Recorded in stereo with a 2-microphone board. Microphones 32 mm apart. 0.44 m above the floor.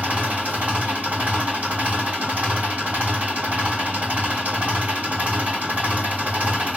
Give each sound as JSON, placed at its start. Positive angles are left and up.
{"t": 0.0, "sound": "an engine running", "side_deg": -55, "distance_m": 2.5}